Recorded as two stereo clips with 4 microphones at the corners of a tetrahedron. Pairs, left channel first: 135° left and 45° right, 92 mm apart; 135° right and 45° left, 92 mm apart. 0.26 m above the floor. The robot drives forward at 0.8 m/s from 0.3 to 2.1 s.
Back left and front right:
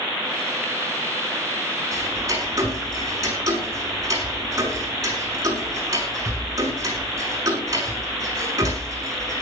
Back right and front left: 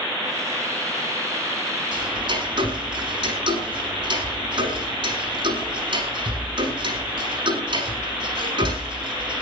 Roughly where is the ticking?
Ahead.